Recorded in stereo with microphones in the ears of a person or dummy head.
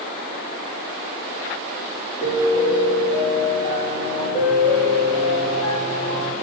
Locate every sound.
2.2 s a piano: 15° left (ahead or behind), 1.5 m